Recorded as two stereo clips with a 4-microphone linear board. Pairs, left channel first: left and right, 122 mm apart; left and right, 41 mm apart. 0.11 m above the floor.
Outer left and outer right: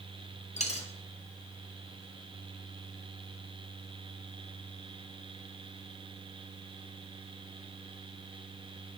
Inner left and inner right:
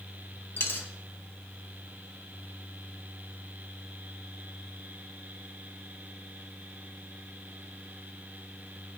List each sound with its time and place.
0.6 s a dropped coin: 60° left (ahead or behind), 1.0 m